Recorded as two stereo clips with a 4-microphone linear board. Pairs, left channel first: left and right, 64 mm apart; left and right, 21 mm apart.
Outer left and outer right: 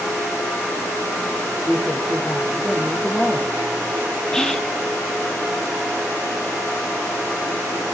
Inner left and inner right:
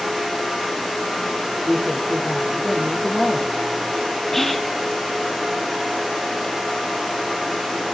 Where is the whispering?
10° left (ahead or behind), 2 m.